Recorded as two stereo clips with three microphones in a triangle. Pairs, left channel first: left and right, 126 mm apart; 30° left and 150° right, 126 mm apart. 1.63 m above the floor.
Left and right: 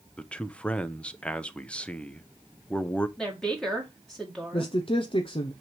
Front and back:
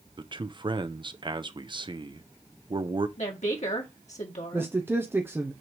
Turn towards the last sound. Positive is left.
turn(degrees=140)